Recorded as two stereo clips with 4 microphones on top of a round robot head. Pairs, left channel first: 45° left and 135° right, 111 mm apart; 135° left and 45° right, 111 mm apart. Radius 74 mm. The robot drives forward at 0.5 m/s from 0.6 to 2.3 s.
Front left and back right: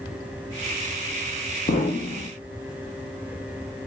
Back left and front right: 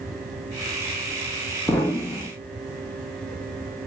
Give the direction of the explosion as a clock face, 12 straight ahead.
10 o'clock.